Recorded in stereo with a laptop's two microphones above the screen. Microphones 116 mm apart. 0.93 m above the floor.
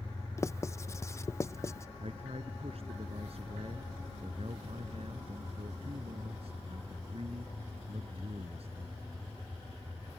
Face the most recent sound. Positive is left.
turn(degrees=-60)  # may be behind; listen again after turning